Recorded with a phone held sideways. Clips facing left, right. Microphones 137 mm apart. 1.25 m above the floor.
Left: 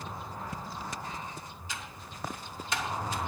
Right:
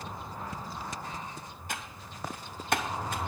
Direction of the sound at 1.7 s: 60° right (ahead or behind).